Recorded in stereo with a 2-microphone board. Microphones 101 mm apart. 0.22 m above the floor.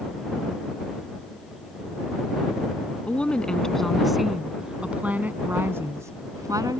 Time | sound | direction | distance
3.1 | a woman speaking | 15° left (ahead or behind) | ?